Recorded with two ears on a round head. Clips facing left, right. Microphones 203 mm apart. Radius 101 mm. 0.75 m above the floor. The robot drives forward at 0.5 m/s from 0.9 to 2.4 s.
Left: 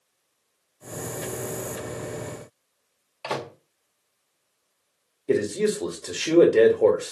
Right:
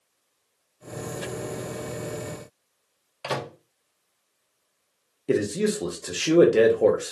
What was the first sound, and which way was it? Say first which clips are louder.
A microwave: even; 20° right (ahead or behind).